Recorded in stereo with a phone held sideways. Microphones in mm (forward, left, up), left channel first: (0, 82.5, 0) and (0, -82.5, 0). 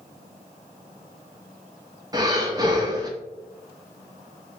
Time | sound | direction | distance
2.1 | breathing | 25° right (ahead or behind) | 0.7 m